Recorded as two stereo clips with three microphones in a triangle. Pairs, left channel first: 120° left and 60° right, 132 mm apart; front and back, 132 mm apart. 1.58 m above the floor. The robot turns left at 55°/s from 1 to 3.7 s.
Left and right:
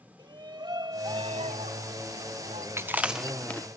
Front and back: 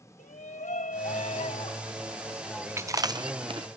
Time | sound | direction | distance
0.2 | a shout | 5° right | ?
2.8 | chewing | 120° right | ?